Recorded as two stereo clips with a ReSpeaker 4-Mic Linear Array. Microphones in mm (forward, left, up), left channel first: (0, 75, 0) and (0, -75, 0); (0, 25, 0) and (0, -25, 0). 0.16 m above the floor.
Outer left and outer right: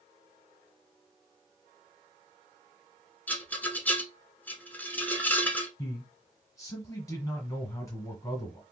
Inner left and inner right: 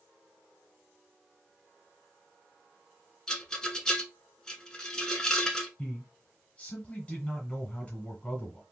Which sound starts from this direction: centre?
A rattle, at 3.3 s.